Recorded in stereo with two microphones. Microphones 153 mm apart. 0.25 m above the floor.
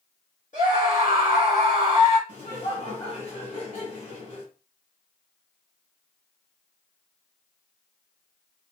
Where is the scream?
55° left (ahead or behind), 2.5 m.